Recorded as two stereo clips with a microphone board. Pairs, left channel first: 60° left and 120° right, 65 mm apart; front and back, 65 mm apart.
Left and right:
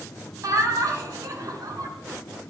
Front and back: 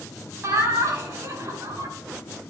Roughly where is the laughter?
Behind right.